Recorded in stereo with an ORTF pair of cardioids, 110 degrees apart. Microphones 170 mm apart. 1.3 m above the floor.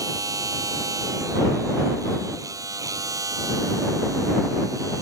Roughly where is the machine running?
Ahead.